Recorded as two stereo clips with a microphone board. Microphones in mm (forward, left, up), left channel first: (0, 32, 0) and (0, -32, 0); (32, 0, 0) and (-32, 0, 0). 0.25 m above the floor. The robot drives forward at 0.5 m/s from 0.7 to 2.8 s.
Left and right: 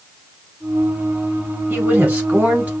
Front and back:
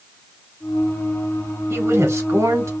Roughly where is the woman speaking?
Behind right.